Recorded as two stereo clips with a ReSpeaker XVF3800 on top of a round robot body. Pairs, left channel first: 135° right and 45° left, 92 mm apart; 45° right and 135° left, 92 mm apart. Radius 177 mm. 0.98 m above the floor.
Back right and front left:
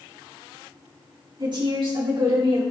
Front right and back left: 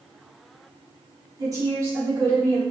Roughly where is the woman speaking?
Left.